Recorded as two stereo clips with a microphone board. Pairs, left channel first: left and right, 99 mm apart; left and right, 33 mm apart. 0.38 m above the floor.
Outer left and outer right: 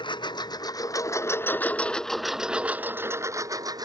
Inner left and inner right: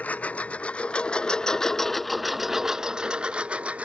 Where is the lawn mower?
50° left (ahead or behind); by 3.9 s 40° right (ahead or behind).